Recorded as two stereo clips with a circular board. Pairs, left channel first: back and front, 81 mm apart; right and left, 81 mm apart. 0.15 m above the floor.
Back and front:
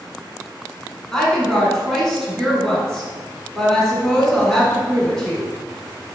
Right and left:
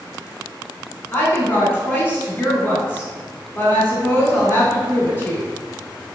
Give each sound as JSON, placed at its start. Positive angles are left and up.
{"t": 1.1, "sound": "a woman speaking", "azimuth_deg": -105, "distance_m": 1.2}